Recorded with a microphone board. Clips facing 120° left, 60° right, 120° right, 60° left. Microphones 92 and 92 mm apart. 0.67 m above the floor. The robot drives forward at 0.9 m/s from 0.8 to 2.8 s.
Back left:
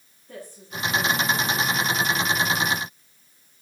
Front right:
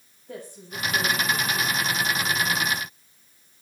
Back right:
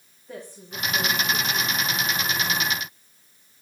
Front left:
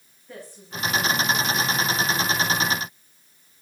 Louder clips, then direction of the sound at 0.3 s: Front right 1 dB, back right 1 dB; 50° right.